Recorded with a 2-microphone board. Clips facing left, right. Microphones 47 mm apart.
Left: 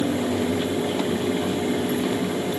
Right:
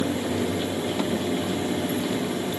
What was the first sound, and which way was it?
Only background noise.